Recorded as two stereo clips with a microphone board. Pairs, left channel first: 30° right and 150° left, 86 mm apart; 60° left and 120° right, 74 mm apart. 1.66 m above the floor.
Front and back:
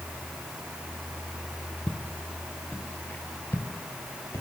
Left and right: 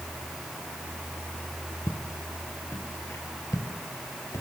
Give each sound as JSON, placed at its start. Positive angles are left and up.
{"t": 1.9, "sound": "footsteps", "azimuth_deg": 40, "distance_m": 1.8}